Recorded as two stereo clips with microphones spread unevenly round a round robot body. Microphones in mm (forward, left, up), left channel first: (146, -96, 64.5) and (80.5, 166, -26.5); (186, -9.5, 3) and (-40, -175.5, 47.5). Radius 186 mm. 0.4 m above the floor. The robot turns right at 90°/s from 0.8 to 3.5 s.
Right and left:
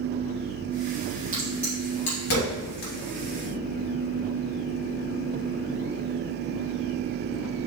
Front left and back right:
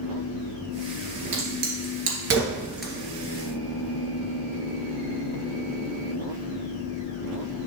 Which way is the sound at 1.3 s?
170° left.